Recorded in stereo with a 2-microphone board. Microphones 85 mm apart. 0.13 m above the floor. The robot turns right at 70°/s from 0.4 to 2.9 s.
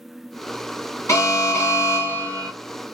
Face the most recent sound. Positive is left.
turn(degrees=-165)